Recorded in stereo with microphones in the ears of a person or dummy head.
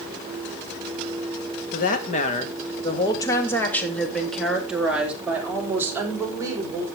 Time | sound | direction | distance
1.7 | a woman speaking | 50° left (ahead or behind) | 2 m